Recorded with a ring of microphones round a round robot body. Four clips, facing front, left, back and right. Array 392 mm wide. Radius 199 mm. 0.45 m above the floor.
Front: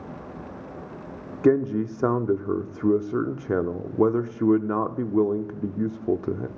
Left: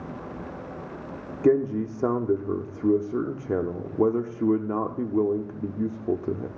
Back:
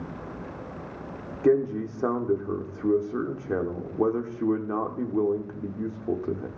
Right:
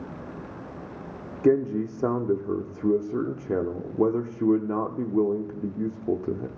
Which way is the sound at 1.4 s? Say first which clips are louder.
Even, front 2 dB; 5° left.